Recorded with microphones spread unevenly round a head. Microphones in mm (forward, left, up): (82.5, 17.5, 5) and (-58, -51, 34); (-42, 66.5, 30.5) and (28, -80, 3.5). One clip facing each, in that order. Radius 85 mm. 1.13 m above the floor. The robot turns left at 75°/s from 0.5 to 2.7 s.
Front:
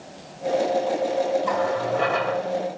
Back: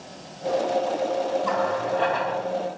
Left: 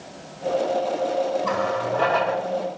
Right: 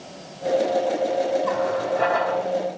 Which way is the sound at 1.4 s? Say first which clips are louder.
Front 1 dB, right 1 dB; 110° left.